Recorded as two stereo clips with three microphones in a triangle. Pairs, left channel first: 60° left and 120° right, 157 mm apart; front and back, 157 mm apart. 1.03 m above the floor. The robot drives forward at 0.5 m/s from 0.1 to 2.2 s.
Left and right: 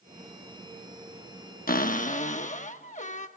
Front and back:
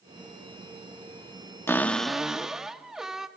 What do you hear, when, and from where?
1.7 s a cupboard door: 75° left, 0.9 m; by 3.3 s 95° left, 0.8 m